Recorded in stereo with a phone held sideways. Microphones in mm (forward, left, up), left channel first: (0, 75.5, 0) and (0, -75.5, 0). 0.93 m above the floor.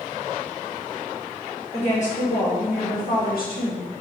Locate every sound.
1.7 s a woman speaking: 45° left (ahead or behind), 1.8 m; by 3.9 s 75° left (ahead or behind), 2 m